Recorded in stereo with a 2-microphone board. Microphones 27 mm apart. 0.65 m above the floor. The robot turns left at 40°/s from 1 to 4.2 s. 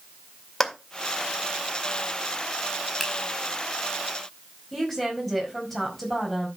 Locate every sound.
0.6 s a clap: 5° left (ahead or behind), 1.9 m
3.0 s a finger snap: 5° left (ahead or behind), 3.5 m; by 3.1 s 10° left (ahead or behind), 3.5 m
4.7 s a woman speaking: 5° left (ahead or behind), 4 m